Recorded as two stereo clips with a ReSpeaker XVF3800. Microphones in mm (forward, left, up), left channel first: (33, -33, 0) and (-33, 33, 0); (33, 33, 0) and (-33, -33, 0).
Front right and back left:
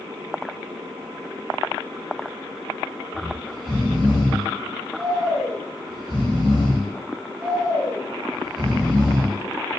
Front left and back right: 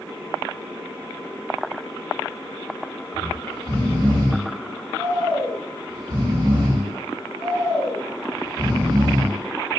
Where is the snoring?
135° right, 1.9 m.